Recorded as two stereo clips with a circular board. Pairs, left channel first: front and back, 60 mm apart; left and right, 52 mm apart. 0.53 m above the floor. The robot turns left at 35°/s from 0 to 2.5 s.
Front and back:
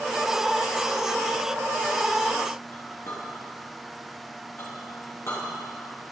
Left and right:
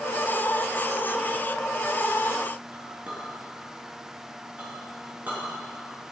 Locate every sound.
2.7 s a clink: 35° right, 4 m